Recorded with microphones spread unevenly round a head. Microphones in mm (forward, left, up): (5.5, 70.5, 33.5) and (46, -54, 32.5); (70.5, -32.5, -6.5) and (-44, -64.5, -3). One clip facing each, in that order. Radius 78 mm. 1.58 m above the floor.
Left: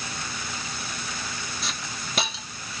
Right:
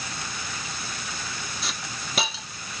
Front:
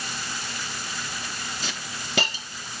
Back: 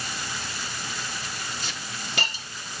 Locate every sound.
1.6 s a hiss: 15° left, 0.7 m